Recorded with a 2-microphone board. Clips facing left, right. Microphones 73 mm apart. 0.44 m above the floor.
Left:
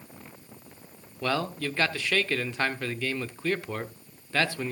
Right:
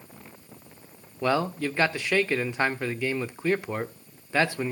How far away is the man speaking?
About 0.9 m.